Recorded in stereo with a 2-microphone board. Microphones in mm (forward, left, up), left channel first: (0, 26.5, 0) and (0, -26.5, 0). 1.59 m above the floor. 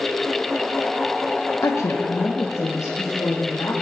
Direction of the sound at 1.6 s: 60° left (ahead or behind).